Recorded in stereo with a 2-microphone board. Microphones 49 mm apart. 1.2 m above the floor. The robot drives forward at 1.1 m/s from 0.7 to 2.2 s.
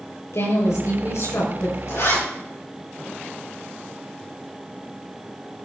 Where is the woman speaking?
85° left, 5 m; by 1.8 s 75° left (ahead or behind), 5.5 m.